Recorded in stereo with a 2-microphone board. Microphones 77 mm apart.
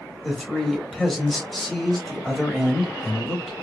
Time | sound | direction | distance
0.2 | a man speaking | centre (ahead or behind) | 0.9 m